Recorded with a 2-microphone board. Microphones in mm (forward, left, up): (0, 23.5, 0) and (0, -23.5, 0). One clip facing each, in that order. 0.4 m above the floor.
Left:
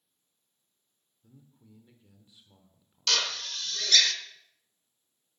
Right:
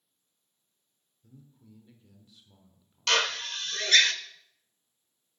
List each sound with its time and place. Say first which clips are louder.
1.2 s a man speaking: right 2 dB; 10° left (ahead or behind), 1.2 m
3.1 s a drill: right 3 dB; 35° right (ahead or behind), 0.8 m